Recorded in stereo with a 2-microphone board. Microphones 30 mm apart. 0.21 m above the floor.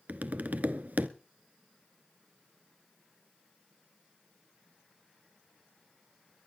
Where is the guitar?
No guitar in this recording.